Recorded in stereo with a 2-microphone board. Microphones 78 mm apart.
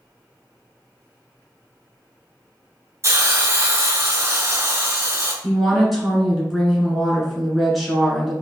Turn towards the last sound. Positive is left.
turn(degrees=0)  # may be behind; listen again after turning